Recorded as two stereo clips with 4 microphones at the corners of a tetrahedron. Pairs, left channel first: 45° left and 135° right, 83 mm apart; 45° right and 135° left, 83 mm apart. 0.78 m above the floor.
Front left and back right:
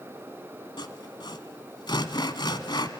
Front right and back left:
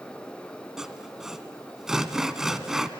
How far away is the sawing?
About 1.2 m.